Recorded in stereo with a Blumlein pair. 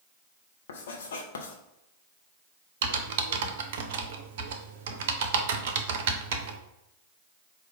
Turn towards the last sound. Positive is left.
turn(degrees=-55)